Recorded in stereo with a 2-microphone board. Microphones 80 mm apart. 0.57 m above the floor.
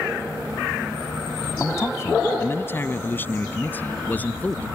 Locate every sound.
1.6 s a man speaking: 35° left (ahead or behind); by 4.7 s 20° left (ahead or behind)